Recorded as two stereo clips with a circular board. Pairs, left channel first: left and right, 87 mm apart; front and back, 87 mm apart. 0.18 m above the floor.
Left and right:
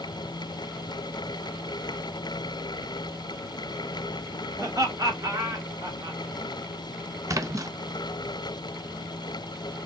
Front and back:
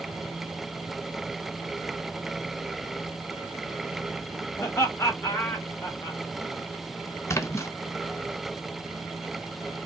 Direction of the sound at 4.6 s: 50° right.